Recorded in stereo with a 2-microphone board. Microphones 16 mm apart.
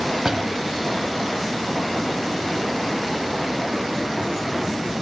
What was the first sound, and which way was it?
A door slam, 35° right (ahead or behind).